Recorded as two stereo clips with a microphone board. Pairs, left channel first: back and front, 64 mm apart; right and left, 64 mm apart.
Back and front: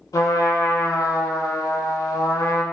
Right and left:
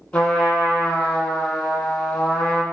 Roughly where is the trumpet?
Behind.